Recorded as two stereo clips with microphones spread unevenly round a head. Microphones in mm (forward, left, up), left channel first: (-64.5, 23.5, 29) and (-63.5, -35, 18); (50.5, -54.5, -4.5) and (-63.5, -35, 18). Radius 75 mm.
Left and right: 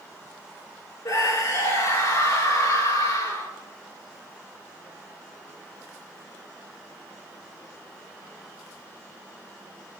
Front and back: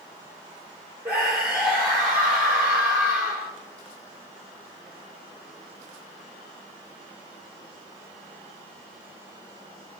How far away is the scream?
About 4.5 m.